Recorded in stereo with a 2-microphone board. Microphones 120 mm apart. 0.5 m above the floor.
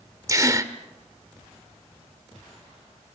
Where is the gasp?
30° right (ahead or behind), 1.0 m.